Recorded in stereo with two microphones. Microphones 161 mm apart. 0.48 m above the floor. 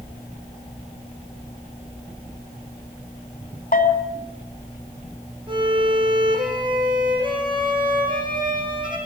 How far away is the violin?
About 7 m.